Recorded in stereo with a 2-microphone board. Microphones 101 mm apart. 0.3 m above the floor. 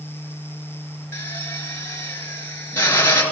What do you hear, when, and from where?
1.1 s a drill: 25° left (ahead or behind), 4.5 m